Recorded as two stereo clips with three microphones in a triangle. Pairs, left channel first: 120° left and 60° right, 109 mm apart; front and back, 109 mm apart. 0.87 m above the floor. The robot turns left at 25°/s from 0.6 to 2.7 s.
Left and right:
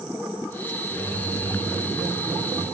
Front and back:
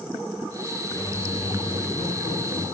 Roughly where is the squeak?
Ahead left.